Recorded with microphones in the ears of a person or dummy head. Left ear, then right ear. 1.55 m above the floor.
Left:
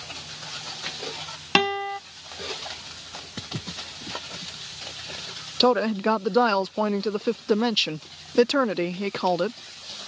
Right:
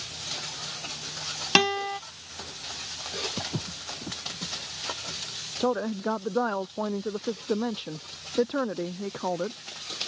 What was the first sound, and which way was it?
A guitar, 10° left (ahead or behind).